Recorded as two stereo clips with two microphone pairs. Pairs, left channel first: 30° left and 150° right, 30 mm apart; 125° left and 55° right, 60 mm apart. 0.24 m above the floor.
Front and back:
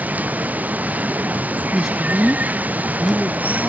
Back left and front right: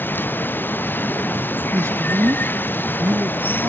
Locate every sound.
0.0 s running water: 175° right
1.7 s a man speaking: 55° right